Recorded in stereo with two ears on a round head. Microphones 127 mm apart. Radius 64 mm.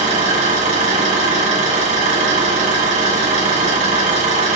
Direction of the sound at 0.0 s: 55° right (ahead or behind).